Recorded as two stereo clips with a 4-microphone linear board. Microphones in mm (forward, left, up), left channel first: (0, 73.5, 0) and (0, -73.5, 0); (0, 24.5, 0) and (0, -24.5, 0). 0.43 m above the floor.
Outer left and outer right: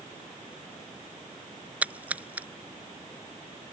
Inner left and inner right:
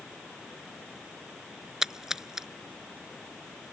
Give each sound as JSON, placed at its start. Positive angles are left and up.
{"t": 1.8, "sound": "a splash", "side_deg": -10}